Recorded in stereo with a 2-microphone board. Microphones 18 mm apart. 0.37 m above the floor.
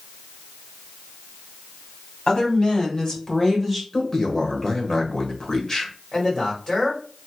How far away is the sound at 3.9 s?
About 1.1 m.